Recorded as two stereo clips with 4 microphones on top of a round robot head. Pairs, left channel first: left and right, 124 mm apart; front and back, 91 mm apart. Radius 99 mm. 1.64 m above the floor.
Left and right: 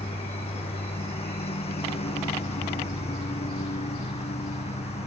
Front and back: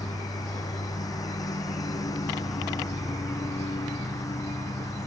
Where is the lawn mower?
50° left; by 5.1 s 55° left.